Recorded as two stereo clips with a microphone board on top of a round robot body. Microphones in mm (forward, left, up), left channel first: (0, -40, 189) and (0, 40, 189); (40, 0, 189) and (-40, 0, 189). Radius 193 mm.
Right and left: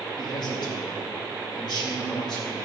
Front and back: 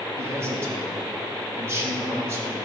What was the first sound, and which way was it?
A man speaking, 120° right.